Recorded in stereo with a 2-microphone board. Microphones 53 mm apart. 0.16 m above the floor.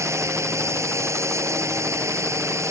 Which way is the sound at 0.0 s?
65° right (ahead or behind).